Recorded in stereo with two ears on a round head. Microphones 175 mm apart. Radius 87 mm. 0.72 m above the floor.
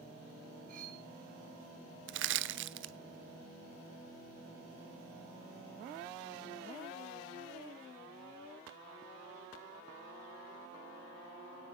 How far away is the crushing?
About 0.9 m.